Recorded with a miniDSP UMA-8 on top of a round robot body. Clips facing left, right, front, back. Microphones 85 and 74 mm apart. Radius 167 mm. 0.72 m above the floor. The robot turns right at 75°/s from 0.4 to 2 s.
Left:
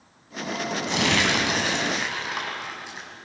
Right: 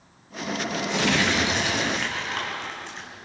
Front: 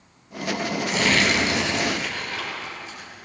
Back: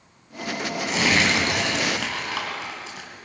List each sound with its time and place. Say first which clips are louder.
0.9 s crumpling: even, even; 85° left, 4.5 m; by 3.1 s 170° left, 4.5 m